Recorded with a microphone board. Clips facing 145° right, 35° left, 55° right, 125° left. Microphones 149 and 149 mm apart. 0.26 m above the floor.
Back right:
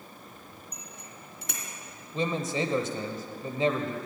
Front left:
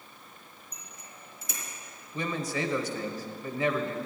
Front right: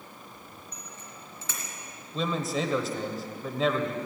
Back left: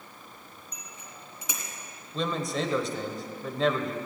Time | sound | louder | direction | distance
0.7 | a bicycle bell | back right 4 dB, front right 1 dB | 160° right | 2.5 m
2.1 | a man speaking | back right 3 dB, even | 140° right | 1.2 m